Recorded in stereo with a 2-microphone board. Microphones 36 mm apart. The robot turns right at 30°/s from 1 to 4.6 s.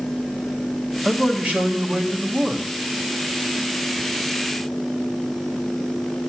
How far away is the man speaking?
About 1.0 m.